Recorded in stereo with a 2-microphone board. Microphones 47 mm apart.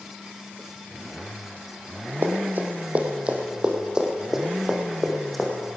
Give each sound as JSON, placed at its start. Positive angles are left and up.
{"t": 2.2, "sound": "running footsteps", "side_deg": -50, "distance_m": 2.5}